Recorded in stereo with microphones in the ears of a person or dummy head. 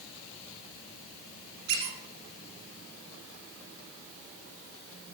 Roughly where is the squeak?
Right.